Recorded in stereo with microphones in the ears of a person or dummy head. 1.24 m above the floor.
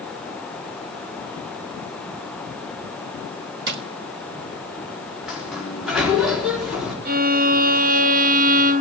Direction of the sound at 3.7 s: 65° right (ahead or behind).